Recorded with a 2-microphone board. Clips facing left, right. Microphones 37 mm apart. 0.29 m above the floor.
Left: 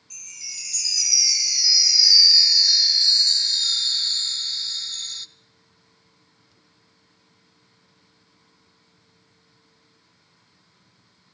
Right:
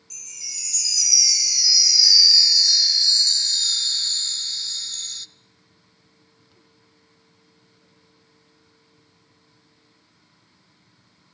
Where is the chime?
15° left (ahead or behind), 0.9 m.